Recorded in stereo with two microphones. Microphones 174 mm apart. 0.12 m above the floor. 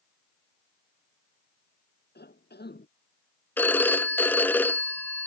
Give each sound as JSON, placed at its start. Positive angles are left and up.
{"t": 2.1, "sound": "a cough", "side_deg": 70}
{"t": 3.6, "sound": "a phone ringing", "side_deg": 10}